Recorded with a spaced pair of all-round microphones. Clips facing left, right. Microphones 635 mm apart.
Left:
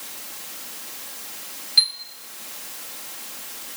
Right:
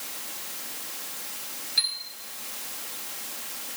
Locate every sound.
1.8 s a chime: 30° left (ahead or behind), 1.4 m